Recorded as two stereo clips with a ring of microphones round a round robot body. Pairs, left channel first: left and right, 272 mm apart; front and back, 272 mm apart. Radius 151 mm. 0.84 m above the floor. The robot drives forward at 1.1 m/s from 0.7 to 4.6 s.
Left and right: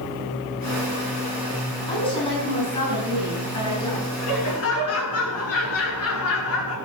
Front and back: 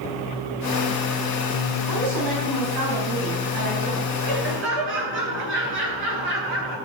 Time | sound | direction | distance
1.9 | a woman speaking | 155° left | 7 m
4.2 | laughter | 125° left | 8.5 m